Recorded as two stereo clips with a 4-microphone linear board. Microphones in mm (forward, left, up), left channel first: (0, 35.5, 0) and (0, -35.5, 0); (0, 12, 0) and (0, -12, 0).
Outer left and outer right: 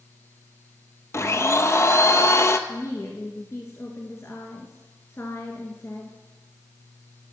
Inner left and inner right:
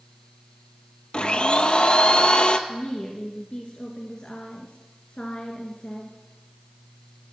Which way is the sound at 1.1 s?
40° left (ahead or behind).